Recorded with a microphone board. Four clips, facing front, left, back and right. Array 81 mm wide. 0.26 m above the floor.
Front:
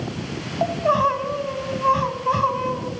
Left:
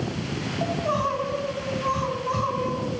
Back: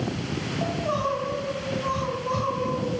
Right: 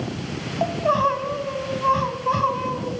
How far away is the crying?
About 1.8 m.